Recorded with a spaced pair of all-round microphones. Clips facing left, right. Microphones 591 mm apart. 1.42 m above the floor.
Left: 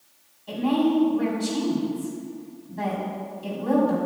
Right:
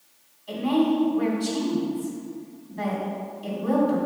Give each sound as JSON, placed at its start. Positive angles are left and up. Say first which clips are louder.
{"t": 0.5, "sound": "a woman speaking", "louder": "even", "side_deg": 65, "distance_m": 4.0}